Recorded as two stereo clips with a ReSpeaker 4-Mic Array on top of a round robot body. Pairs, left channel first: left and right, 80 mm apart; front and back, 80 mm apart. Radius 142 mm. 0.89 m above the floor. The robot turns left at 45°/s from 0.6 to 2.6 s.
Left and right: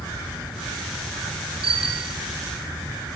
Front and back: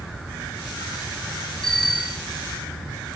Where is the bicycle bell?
85° right, 2.5 m; by 2.2 s 110° right, 2.5 m.